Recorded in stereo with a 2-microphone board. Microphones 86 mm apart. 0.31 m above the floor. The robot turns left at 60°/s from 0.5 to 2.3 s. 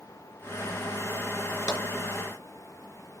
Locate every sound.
1.7 s tapping: 35° left (ahead or behind), 2.5 m; by 1.9 s 25° left (ahead or behind), 2.5 m